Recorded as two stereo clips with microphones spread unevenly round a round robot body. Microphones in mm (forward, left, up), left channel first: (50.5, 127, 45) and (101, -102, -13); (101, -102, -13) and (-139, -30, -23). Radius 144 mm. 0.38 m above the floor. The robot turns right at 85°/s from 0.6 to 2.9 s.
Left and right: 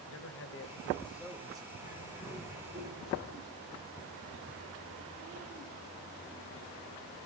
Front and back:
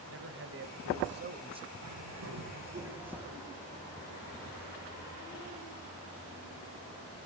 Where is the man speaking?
140° left, 2 m; by 1.7 s 125° right, 2 m.